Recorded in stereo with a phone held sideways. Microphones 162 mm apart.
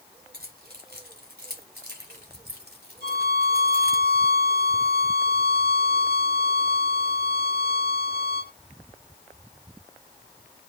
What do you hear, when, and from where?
0.3 s keys jangling: 80° right, 3.5 m; by 4.0 s 65° right (ahead or behind), 1.8 m
3.0 s a violin: 75° right (ahead or behind), 5 m